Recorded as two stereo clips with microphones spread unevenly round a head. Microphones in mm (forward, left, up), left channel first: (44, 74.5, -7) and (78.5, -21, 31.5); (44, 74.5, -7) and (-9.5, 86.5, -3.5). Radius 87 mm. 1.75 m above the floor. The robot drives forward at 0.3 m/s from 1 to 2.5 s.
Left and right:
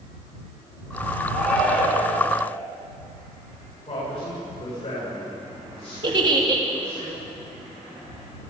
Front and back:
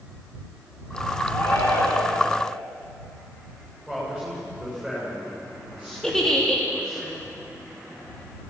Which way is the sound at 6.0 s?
100° right.